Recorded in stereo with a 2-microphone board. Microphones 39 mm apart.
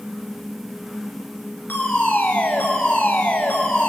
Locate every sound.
1.7 s a fire alarm: 55° left (ahead or behind), 4 m